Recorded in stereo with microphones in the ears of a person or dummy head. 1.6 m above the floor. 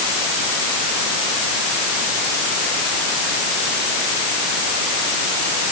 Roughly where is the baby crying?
No baby crying in this recording.